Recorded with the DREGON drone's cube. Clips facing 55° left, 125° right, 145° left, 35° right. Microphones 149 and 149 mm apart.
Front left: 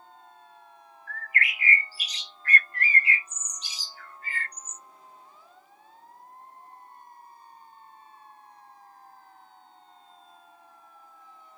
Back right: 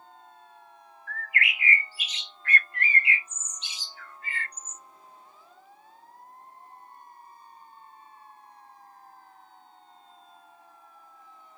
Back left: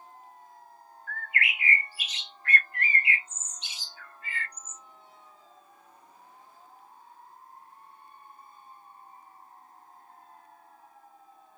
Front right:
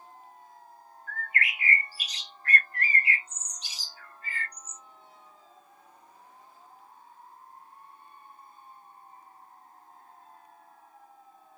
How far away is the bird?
About 0.6 m.